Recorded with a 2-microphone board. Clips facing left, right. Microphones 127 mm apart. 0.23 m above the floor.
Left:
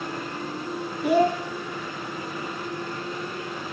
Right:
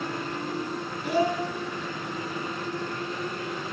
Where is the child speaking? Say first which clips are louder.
Left 5 dB; 70° left (ahead or behind), 3 m.